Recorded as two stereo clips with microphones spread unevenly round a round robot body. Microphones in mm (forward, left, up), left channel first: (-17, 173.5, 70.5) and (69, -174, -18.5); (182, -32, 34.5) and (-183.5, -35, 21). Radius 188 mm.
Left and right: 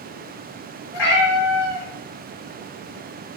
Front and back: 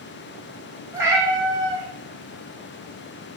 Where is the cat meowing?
95° left, 1.0 m.